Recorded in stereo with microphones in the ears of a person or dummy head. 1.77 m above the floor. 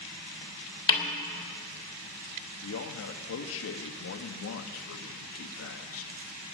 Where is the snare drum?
30° left (ahead or behind), 3 m.